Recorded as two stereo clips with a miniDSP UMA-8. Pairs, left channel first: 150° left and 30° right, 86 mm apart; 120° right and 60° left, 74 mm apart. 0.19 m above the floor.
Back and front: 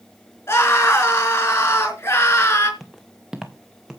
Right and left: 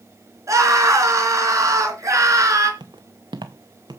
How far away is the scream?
About 3 m.